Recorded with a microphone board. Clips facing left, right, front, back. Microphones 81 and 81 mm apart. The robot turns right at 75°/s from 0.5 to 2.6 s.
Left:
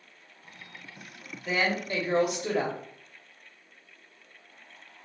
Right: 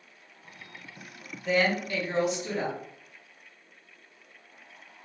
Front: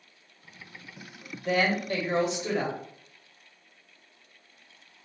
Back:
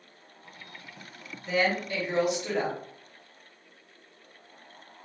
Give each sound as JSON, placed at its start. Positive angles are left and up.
{"t": 1.4, "sound": "a woman speaking", "azimuth_deg": 0, "distance_m": 1.1}